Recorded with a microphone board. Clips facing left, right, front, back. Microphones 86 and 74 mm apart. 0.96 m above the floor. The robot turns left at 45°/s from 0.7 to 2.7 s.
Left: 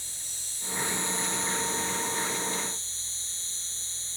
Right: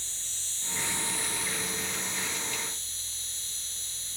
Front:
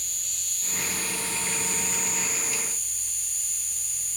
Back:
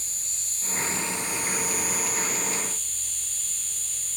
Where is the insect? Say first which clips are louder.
Right 1 dB, even; 160° left, 1.0 m; by 4.2 s 70° left, 1.0 m.